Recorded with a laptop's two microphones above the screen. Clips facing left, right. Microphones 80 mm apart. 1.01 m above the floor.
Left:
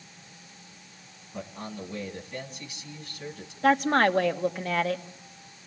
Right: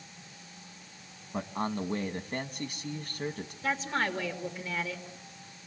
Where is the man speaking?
50° right (ahead or behind), 1.6 m.